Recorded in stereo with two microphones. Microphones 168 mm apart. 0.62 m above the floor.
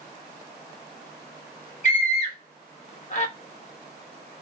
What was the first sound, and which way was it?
A scream, 45° left (ahead or behind).